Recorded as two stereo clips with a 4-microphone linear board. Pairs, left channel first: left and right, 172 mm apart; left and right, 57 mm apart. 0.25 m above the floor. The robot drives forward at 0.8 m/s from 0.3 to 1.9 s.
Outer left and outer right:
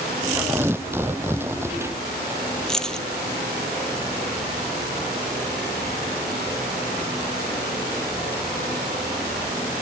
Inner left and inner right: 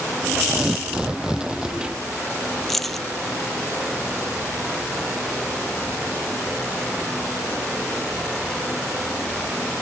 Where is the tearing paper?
15° right (ahead or behind).